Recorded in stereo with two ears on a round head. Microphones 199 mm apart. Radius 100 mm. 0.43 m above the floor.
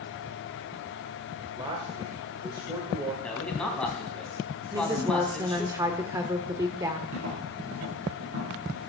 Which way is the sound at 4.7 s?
15° right (ahead or behind).